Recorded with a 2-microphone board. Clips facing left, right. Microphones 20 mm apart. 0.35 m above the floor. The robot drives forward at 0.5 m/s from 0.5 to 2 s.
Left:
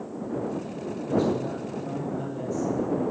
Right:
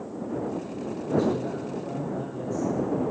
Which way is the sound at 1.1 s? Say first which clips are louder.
Even; 5° left (ahead or behind).